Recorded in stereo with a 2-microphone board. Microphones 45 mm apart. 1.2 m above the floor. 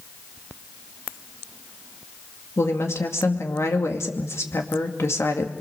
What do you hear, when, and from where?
2.6 s a woman speaking: 75° left (ahead or behind), 2.5 m